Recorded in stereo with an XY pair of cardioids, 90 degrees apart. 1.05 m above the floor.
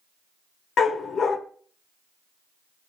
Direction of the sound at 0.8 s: 65° left.